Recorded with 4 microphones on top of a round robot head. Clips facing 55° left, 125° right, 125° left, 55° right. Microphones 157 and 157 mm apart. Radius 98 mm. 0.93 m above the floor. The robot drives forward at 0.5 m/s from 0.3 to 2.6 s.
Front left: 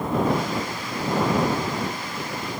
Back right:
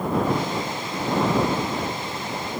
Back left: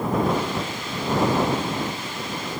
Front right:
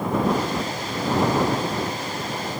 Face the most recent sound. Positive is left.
No sound to turn to.